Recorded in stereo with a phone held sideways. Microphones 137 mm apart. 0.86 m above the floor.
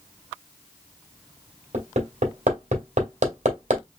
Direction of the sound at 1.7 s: 70° right (ahead or behind).